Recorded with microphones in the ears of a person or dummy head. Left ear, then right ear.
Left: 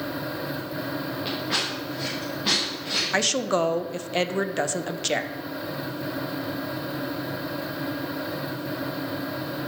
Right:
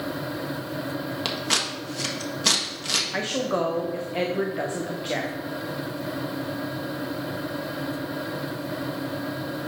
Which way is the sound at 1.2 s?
85° right.